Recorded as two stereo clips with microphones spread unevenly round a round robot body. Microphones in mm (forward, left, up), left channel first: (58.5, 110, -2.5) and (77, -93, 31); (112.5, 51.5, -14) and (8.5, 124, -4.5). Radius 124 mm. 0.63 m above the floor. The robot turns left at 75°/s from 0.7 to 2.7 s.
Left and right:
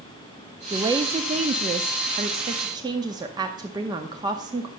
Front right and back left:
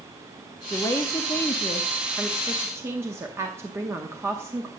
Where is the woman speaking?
5° right, 0.7 m; by 4.7 s 155° right, 0.7 m.